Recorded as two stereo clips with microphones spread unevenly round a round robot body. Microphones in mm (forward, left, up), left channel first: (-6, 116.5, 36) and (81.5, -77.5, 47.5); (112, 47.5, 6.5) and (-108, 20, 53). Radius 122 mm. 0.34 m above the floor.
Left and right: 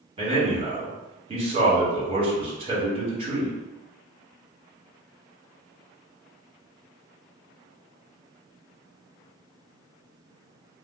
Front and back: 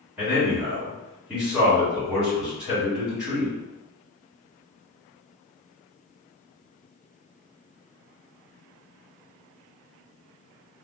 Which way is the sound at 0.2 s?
65° right.